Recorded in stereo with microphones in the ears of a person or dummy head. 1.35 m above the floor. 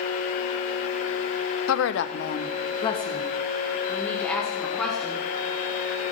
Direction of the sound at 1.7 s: 80° left.